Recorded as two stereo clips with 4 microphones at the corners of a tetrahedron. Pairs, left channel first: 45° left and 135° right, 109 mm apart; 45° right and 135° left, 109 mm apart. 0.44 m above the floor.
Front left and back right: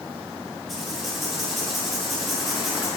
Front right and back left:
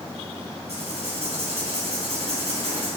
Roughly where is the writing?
Behind left.